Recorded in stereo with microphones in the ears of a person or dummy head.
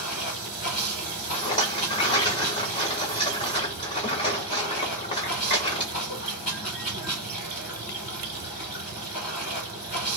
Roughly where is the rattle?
Left.